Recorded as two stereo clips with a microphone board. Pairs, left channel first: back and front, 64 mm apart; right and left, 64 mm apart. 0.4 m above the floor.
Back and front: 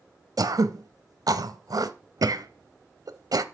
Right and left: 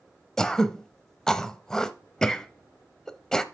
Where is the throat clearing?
10° right, 0.5 m.